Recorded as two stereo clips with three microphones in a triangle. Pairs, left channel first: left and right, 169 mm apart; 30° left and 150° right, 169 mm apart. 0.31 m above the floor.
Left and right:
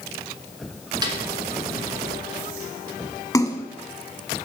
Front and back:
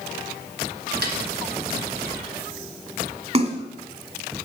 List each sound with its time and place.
1.0 s a snare drum: 155° right, 1.8 m
3.3 s a splash: 160° left, 1.0 m